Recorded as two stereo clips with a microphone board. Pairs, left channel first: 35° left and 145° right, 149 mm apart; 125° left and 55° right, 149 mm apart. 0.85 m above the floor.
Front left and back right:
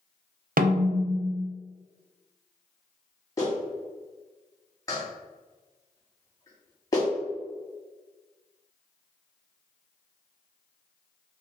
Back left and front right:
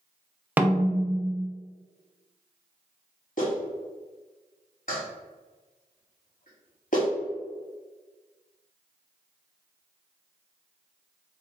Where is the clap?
100° left, 1.6 m.